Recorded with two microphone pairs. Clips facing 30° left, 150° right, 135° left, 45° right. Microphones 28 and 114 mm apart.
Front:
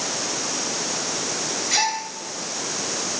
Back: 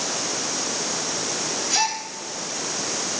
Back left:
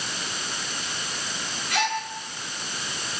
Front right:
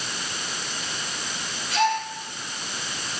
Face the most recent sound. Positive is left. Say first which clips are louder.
# front 1 dB, front right 4 dB
turn(degrees=115)